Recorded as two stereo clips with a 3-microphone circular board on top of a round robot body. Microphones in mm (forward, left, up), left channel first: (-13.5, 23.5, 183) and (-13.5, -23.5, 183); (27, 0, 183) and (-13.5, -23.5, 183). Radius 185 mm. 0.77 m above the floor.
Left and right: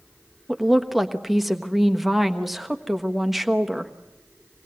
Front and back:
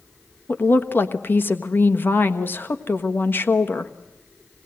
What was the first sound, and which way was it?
A woman speaking, 5° right.